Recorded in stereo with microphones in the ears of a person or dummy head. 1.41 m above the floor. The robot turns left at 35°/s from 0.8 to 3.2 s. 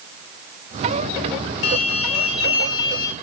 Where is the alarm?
120° left, 5 m; by 3.1 s 65° left, 5 m.